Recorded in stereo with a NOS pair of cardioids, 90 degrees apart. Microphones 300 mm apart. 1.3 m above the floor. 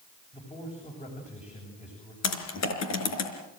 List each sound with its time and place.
0.3 s a man speaking: 20° left, 7.5 m
2.2 s typing on a keyboard: 60° left, 4 m